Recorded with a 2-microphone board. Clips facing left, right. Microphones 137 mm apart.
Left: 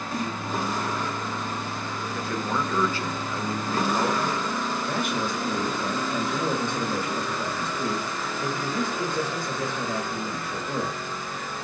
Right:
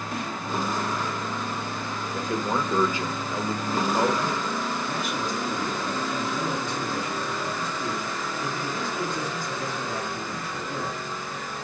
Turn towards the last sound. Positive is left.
turn(degrees=60)  # may be behind; listen again after turning